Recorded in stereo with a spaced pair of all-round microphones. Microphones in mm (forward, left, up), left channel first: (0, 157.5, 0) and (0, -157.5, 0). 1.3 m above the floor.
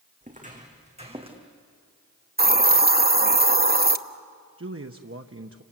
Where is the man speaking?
45° right (ahead or behind), 0.9 m.